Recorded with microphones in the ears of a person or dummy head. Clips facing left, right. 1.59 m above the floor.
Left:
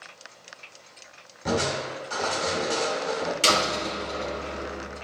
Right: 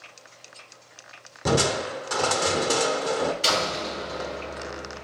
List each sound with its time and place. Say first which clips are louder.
1.4 s crushing: right 3 dB; 70° right (ahead or behind), 0.8 m
3.4 s a door slam: left 1 dB; 55° left (ahead or behind), 2 m